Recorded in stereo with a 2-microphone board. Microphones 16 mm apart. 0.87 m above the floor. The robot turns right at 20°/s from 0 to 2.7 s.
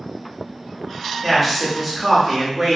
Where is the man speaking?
5° right (ahead or behind), 1.0 m; by 2.8 s 15° right (ahead or behind), 1.0 m.